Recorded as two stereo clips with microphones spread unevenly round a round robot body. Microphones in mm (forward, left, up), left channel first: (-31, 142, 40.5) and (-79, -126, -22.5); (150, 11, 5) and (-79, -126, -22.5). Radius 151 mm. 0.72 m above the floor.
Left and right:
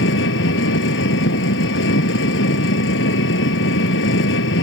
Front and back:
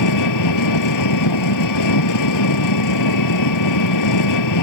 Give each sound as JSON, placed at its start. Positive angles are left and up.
{"t": 0.0, "sound": "an engine running", "azimuth_deg": 25}